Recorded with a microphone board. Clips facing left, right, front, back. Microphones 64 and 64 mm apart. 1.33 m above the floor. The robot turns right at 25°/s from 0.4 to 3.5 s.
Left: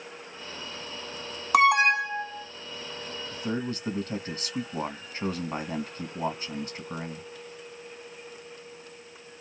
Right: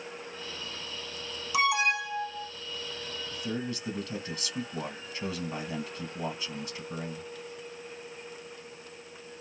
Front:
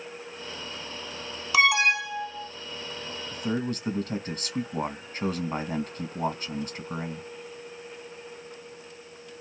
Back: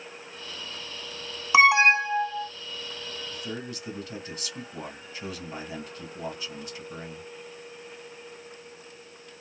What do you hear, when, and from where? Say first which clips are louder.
1.5 s an alarm: left 7 dB, back 4 dB; 115° left, 0.6 m; by 2.5 s 140° left, 0.6 m
3.3 s a man speaking: left 4 dB, front 10 dB; 40° left, 1.5 m; by 7.3 s 45° left, 1.5 m